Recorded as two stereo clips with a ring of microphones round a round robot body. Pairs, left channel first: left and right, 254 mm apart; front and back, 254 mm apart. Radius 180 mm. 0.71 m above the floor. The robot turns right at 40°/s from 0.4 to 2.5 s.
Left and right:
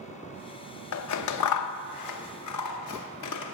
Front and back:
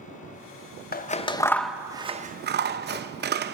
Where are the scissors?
60° left, 0.6 m; by 3.6 s 125° left, 0.6 m.